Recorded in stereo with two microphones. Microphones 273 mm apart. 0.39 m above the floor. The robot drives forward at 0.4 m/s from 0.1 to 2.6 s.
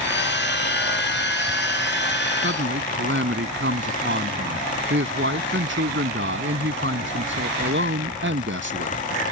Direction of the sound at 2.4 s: 45° right (ahead or behind).